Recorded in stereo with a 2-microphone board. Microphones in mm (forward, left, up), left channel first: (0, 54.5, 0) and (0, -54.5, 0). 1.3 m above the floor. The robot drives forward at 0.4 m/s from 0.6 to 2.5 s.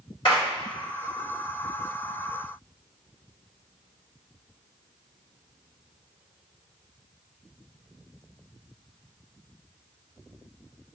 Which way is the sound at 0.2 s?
45° left (ahead or behind).